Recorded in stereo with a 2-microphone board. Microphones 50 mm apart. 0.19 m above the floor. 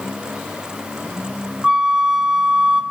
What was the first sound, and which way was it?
A flute, 15° right (ahead or behind).